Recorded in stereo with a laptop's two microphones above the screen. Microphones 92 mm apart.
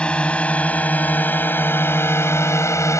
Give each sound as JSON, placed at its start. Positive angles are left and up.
{"t": 0.0, "sound": "a drone", "side_deg": 10}